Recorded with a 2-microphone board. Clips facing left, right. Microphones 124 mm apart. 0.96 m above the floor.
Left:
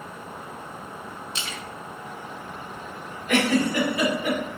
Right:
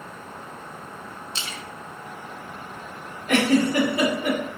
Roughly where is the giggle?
Right.